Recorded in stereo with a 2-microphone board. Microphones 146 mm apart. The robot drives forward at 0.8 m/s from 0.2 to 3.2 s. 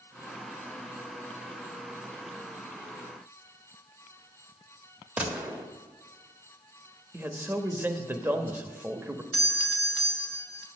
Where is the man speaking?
15° right (ahead or behind), 1.1 m.